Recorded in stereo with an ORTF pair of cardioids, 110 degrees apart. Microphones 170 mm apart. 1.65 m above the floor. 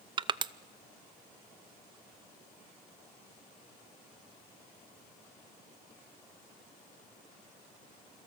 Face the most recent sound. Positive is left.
turn(degrees=-30)